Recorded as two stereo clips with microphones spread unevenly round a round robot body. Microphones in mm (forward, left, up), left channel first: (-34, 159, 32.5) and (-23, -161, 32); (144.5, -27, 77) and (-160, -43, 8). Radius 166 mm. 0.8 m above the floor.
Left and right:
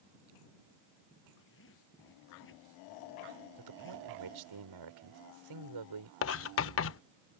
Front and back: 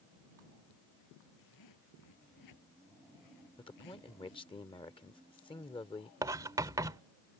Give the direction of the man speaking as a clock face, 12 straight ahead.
2 o'clock.